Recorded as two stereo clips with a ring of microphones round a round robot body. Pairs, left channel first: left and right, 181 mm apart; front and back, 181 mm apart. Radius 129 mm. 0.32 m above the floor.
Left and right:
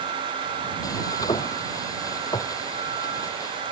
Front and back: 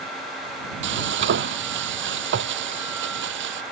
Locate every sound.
0.8 s frying: 170° left